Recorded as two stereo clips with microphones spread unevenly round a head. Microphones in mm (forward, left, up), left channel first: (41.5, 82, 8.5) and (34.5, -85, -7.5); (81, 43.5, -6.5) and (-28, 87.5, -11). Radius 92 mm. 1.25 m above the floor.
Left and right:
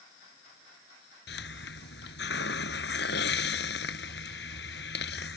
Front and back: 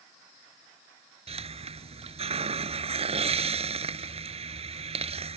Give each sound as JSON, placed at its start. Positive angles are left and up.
{"t": 1.3, "sound": "a hiss", "azimuth_deg": 125}